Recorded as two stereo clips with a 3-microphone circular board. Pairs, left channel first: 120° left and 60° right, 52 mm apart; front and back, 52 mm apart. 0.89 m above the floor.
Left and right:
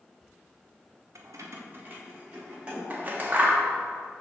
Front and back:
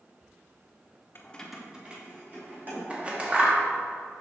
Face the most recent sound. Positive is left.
turn(degrees=-115)